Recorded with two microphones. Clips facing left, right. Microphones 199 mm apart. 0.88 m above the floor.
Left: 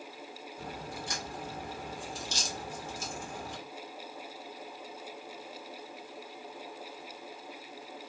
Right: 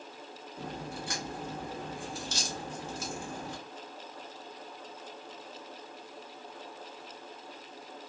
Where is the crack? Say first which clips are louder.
Right 3 dB; 65° right (ahead or behind), 1.3 m.